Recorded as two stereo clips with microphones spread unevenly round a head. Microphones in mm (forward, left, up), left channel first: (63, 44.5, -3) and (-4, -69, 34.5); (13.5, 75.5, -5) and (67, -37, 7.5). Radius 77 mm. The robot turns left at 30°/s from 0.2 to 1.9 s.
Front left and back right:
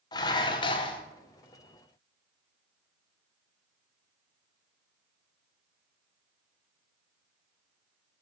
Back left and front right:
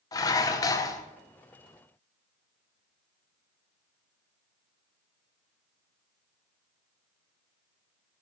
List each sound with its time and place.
0.1 s dishes clattering: 120° left, 0.6 m; by 1.0 s 95° left, 0.6 m